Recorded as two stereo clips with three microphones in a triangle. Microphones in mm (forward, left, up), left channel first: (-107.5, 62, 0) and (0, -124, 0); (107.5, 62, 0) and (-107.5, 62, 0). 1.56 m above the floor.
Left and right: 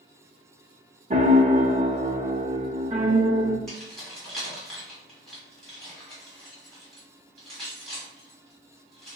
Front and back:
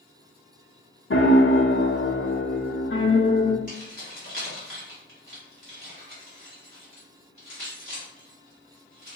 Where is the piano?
10° right, 0.6 m.